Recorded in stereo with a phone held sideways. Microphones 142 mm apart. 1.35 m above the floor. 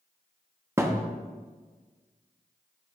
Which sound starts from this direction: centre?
A thud, at 0.8 s.